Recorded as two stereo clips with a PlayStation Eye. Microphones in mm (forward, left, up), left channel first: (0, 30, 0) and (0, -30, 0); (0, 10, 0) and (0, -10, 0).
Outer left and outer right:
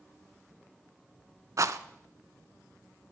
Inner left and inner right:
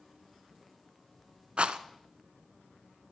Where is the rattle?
65° right (ahead or behind), 0.6 m.